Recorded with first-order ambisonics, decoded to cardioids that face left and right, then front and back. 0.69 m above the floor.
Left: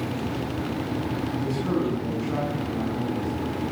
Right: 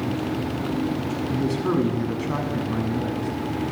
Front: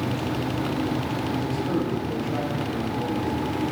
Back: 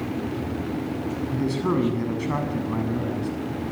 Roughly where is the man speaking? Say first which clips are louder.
Right 5 dB, back 4 dB; behind.